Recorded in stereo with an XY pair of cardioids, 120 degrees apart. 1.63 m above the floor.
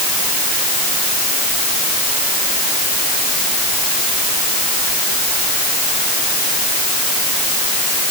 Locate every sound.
Only background noise.